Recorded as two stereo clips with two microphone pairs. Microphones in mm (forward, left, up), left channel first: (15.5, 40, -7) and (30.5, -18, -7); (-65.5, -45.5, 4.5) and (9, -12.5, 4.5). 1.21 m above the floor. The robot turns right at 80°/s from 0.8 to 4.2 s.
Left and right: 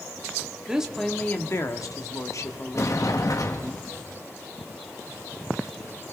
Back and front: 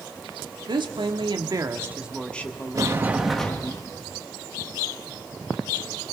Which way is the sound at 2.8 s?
70° left.